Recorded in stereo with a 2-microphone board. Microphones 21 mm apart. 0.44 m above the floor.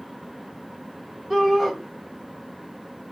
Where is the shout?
10° right (ahead or behind), 1.3 m.